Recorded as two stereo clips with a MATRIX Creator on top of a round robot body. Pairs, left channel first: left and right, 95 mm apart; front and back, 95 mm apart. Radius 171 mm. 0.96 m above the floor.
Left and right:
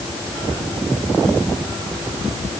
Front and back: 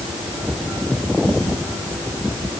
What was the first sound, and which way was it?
Only background noise.